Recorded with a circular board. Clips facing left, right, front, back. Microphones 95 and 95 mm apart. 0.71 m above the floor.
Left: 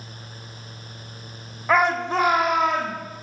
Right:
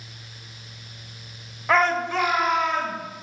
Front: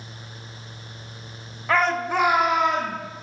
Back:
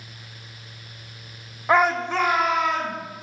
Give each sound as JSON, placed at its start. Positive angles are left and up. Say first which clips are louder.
{"t": 1.7, "sound": "a shout", "louder": "left 1 dB, back 2 dB", "azimuth_deg": 170, "distance_m": 0.8}